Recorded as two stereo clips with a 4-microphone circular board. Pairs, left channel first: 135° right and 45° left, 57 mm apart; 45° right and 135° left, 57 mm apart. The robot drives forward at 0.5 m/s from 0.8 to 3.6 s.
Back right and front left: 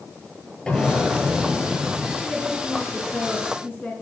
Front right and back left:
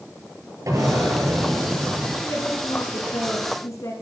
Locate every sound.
0.7 s an explosion: 150° left, 9 m
2.2 s a woman speaking: 70° right, 4.5 m; by 3.9 s 80° right, 4 m